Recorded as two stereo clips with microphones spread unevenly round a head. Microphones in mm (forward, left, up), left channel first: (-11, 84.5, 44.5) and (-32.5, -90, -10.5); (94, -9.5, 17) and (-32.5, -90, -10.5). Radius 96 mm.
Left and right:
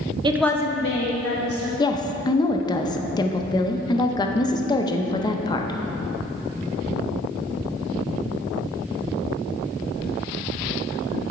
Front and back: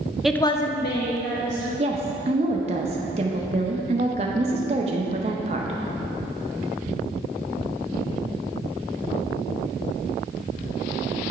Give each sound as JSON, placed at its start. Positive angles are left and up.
{"t": 0.2, "sound": "a woman speaking", "azimuth_deg": -70, "distance_m": 0.6}
{"t": 1.8, "sound": "a woman speaking", "azimuth_deg": 150, "distance_m": 0.6}